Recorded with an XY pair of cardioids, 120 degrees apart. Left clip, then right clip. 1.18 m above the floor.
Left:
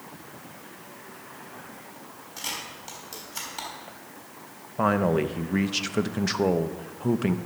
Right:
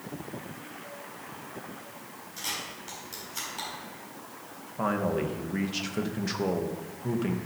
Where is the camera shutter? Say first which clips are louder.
Left 1 dB; 25° left, 5 m.